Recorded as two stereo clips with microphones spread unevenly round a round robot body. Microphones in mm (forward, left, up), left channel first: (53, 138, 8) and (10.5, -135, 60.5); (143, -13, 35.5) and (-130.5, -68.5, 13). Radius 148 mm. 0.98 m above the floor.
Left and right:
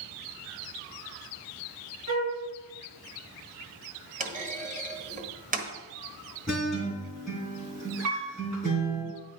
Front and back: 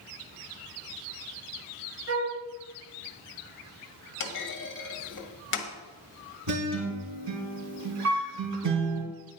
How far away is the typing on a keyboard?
No typing on a keyboard in this recording.